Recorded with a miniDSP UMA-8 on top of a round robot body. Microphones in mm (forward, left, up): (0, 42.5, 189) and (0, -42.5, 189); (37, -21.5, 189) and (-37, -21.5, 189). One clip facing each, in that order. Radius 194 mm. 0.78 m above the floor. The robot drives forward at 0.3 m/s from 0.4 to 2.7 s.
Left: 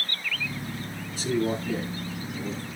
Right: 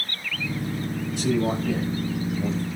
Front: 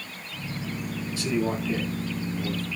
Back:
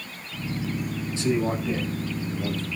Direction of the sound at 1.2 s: 115° right.